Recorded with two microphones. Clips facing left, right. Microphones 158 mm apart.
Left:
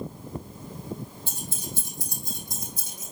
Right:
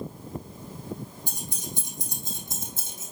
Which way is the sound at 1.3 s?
15° right (ahead or behind).